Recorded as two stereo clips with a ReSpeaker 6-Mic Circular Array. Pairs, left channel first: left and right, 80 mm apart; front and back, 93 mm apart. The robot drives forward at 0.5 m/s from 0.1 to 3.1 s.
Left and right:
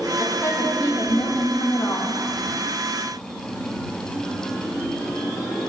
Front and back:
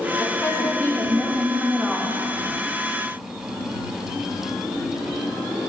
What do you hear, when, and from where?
0.2 s a woman speaking: 50° left, 1.5 m; by 2.2 s 95° left, 1.2 m